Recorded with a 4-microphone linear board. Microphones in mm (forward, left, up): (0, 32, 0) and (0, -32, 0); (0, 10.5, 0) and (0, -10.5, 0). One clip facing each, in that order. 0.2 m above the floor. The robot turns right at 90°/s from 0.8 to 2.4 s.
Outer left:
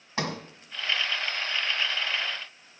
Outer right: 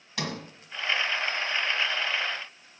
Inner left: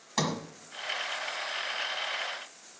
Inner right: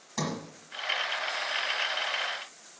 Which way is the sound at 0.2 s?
35° left (ahead or behind).